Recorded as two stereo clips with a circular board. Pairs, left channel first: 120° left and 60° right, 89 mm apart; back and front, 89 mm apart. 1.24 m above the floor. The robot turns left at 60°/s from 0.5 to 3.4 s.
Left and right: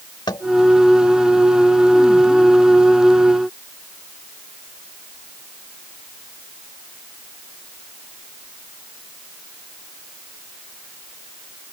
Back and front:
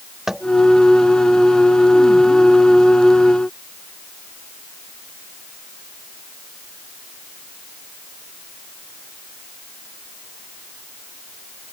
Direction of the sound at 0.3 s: 85° left.